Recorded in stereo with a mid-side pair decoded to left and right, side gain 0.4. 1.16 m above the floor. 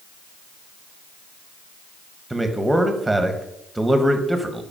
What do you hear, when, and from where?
2.3 s a man speaking: 10° right, 1.2 m